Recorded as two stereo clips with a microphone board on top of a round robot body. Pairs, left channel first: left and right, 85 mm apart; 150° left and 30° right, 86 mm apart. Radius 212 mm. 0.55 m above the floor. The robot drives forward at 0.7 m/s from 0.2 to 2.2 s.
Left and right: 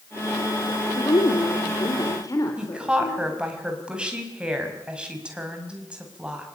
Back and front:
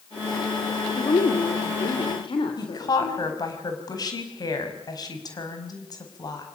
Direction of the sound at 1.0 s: 125° left.